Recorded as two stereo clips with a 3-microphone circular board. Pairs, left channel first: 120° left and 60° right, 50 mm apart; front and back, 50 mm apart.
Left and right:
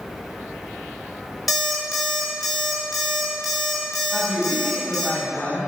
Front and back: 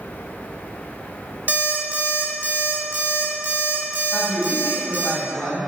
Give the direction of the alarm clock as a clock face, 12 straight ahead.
5 o'clock.